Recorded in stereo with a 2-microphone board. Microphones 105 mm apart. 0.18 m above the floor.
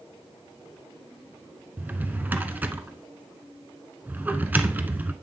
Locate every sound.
1.8 s a drawer: 15° right (ahead or behind), 0.8 m